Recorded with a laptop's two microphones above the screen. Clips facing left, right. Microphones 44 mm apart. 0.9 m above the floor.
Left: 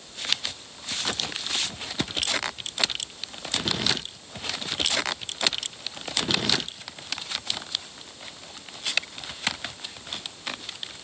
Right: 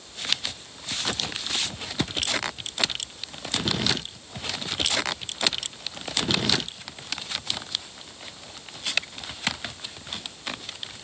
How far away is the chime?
No chime in this recording.